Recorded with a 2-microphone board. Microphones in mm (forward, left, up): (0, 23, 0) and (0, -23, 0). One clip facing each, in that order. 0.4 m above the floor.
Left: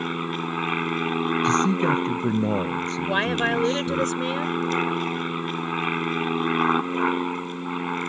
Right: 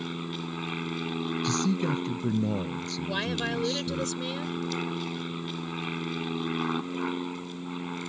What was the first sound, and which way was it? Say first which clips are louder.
An aircraft: left 7 dB; 45° left (ahead or behind).